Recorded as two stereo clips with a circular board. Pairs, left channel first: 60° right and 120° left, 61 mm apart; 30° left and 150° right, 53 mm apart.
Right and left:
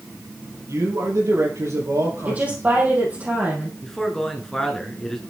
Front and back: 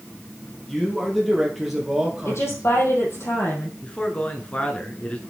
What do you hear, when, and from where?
0.7 s a man speaking: 110° left, 3.5 m; by 2.6 s 135° left, 3.5 m
2.2 s a woman speaking: 55° left, 3.5 m
3.8 s a man speaking: 10° left, 1.5 m